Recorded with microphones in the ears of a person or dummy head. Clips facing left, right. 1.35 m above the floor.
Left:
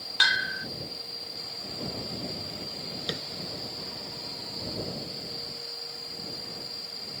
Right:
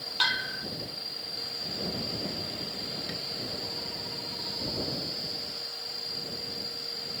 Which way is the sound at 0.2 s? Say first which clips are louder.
Left 2 dB; 20° left (ahead or behind).